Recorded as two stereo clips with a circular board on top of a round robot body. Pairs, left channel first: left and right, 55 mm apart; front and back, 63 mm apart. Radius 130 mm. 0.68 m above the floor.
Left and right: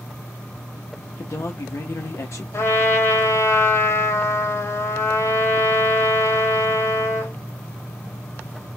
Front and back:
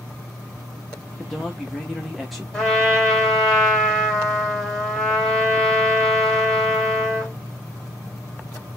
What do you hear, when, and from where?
1.2 s a man speaking: 90° left, 0.9 m
2.5 s a trumpet: 80° left, 2.0 m